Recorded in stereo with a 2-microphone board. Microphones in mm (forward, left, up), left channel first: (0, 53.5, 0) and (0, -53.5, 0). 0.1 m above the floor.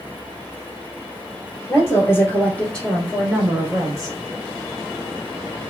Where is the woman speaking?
30° left (ahead or behind), 1.8 m; by 4.2 s 30° right (ahead or behind), 1.3 m.